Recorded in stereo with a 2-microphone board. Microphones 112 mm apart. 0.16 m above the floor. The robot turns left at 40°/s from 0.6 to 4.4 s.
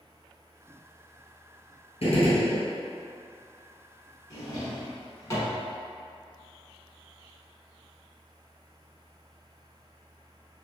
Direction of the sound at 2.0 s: 70° left (ahead or behind).